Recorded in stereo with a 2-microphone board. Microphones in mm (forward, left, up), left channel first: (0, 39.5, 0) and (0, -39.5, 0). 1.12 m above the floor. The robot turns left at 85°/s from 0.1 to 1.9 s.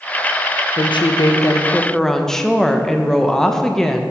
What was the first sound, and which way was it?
A woman speaking, 105° left.